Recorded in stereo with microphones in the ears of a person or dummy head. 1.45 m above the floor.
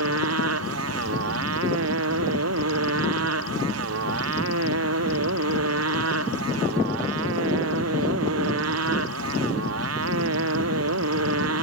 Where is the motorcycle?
80° right.